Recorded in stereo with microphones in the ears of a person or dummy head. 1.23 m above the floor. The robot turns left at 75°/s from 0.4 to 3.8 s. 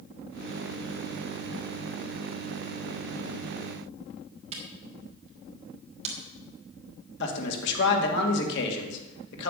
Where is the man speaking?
50° left (ahead or behind), 2.5 m.